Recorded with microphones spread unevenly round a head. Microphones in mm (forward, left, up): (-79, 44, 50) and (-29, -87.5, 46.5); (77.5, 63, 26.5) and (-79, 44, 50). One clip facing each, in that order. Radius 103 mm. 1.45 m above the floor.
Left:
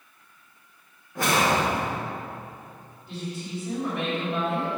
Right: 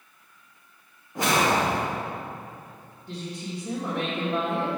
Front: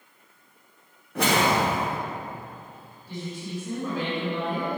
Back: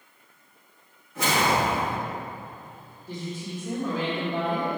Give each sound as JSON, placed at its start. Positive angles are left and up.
{"t": 1.1, "sound": "a whoosh", "azimuth_deg": 5, "distance_m": 0.8}
{"t": 3.1, "sound": "a woman speaking", "azimuth_deg": -120, "distance_m": 1.8}